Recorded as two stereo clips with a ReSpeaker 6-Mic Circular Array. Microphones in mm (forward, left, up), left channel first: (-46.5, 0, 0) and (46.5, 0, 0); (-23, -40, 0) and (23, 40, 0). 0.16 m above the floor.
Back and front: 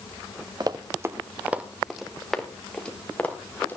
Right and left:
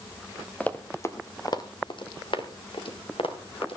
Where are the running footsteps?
45° right, 1.6 m; by 3.8 s 110° right, 4 m.